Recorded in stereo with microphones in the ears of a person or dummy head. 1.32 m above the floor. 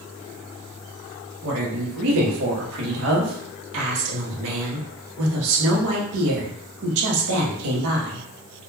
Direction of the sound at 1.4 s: 75° right (ahead or behind).